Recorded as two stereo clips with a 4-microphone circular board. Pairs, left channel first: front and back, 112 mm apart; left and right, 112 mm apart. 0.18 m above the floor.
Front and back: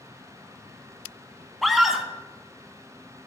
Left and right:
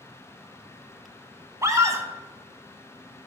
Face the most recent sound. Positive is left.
turn(degrees=-90)